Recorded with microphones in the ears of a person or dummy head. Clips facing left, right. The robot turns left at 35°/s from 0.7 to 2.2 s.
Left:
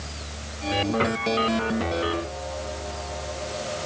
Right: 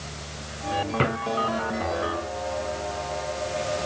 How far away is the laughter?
No laughter in this recording.